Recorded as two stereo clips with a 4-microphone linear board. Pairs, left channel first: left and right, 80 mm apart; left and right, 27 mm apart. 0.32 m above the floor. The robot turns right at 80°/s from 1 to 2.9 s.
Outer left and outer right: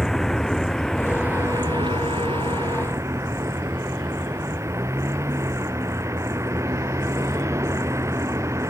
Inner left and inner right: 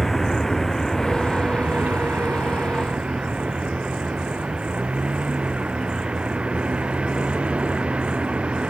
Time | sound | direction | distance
0.0 | a vehicle | 5° left (ahead or behind) | ?